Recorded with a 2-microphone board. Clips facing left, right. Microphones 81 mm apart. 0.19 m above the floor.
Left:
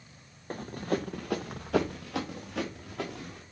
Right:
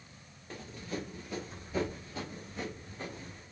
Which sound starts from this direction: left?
Running footsteps, at 0.5 s.